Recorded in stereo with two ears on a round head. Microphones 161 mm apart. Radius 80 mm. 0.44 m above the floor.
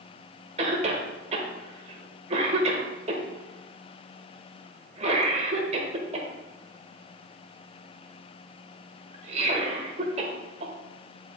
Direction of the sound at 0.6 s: 40° right (ahead or behind).